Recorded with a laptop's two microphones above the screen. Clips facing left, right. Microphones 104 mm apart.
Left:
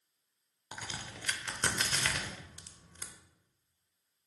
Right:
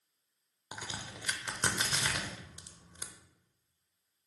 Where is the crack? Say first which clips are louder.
Right 1 dB; 15° right (ahead or behind), 0.8 m.